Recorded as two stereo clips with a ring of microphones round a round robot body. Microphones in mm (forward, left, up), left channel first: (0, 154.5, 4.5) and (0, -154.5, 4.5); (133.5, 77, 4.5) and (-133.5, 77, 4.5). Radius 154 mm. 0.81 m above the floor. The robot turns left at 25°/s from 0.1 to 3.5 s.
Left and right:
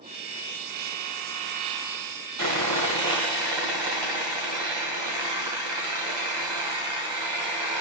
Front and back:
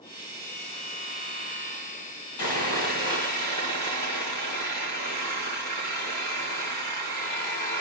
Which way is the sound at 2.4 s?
45° right.